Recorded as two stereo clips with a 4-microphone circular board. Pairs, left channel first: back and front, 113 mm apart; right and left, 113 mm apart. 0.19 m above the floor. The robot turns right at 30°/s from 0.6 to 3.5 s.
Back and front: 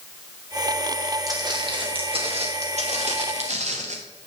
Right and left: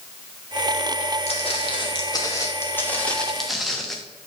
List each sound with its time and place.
1.3 s footsteps: 60° right, 3.5 m; by 4.0 s straight ahead, 2 m